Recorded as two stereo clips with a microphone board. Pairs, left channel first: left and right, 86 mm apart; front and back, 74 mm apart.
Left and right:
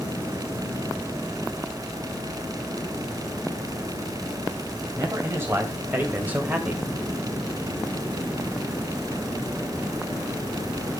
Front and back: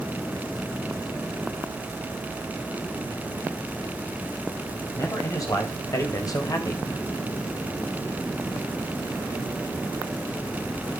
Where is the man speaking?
35° right, 3.5 m; by 6.9 s 15° right, 2.5 m.